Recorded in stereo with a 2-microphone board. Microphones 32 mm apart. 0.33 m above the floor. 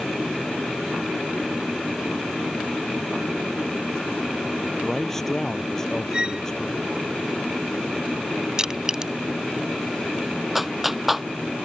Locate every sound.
4.8 s a man speaking: 10° left (ahead or behind); by 6.9 s 15° left (ahead or behind)
6.1 s a violin: 30° right (ahead or behind)
8.6 s crushing: 20° right (ahead or behind)
10.6 s a clap: 5° right (ahead or behind)